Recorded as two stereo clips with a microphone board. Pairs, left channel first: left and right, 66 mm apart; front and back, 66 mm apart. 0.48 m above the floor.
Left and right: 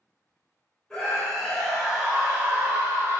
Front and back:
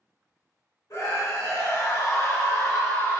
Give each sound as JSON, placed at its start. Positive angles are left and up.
{"t": 0.9, "sound": "a scream", "azimuth_deg": 10, "distance_m": 1.8}